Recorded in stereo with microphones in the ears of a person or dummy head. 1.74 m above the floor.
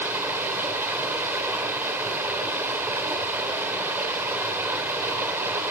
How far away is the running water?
About 3 m.